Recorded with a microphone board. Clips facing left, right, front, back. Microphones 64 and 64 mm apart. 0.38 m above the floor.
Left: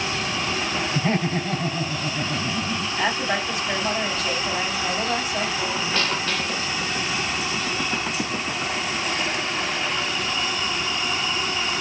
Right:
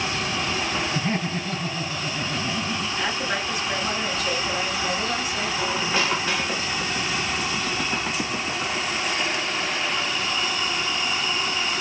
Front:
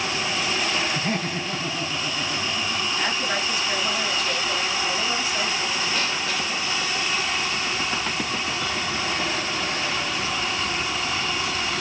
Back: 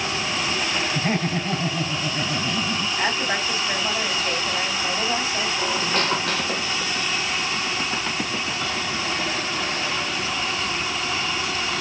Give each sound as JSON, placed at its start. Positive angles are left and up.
{"t": 0.9, "sound": "laughter", "azimuth_deg": 115, "distance_m": 1.5}
{"t": 3.0, "sound": "a woman speaking", "azimuth_deg": 120, "distance_m": 3.0}
{"t": 5.6, "sound": "a squeak", "azimuth_deg": -170, "distance_m": 0.6}